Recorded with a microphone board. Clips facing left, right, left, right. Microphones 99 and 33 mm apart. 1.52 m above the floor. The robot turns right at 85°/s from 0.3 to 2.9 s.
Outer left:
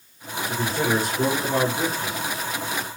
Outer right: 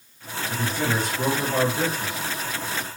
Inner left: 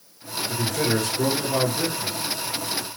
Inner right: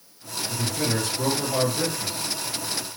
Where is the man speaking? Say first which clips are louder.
Outer left 3 dB, inner left 3 dB; 75° left, 1.7 m; by 2.2 s 140° right, 1.7 m.